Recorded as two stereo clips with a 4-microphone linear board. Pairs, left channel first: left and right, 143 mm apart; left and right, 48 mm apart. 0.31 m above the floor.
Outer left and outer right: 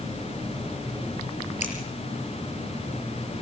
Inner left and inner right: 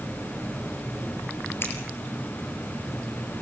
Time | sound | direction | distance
1.6 | scissors | 55° left (ahead or behind) | 5.5 m